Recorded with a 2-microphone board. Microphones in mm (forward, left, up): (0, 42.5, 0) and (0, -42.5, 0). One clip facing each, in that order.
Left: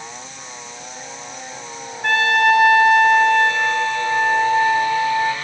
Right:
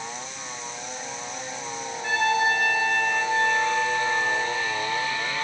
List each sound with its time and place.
2.0 s a trumpet: 60° left (ahead or behind), 3.5 m